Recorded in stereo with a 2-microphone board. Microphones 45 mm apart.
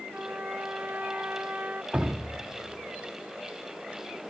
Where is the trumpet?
30° right (ahead or behind), 0.8 m.